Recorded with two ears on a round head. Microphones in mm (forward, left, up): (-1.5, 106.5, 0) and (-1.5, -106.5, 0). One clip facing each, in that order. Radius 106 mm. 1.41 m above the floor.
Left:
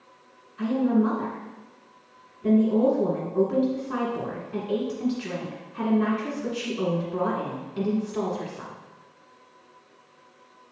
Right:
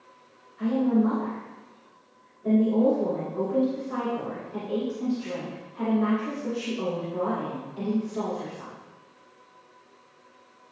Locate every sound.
0.6 s a woman speaking: 85° left, 1.6 m